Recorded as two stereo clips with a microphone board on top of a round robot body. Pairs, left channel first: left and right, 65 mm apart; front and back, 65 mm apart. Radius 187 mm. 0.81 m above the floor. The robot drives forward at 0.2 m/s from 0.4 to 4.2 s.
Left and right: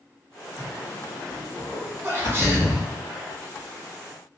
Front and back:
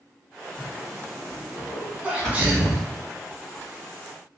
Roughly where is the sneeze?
Behind right.